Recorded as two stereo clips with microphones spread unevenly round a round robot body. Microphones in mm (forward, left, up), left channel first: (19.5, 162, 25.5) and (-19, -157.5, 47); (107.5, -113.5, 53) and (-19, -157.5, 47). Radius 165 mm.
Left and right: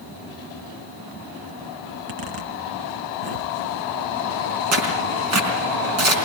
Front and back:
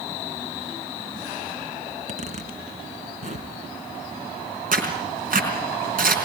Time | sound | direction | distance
1.9 | a zipper | 125° right | 2.5 m
4.7 | tearing paper | 145° right | 4.5 m